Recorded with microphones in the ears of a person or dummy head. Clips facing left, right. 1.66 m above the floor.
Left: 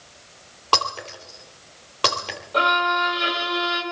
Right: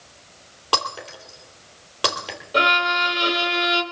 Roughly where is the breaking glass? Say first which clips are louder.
Left 2 dB; centre.